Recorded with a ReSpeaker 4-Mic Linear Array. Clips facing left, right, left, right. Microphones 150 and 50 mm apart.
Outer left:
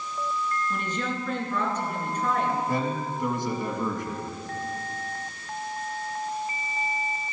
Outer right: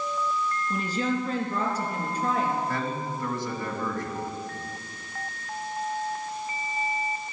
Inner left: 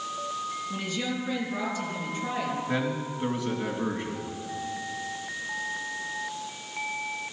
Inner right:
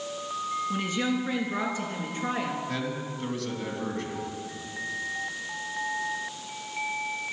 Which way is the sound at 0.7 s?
35° right (ahead or behind).